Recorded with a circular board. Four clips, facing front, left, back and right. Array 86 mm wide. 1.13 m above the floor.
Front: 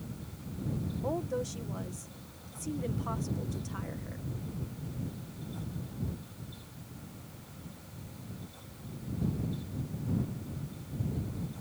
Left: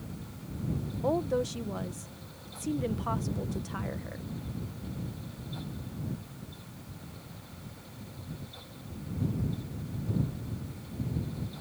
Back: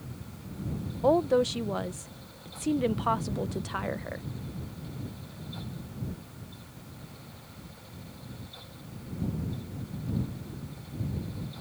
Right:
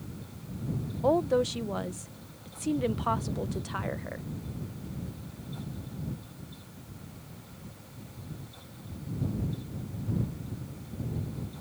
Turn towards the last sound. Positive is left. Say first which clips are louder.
# right 4 dB, back 12 dB
turn(degrees=-155)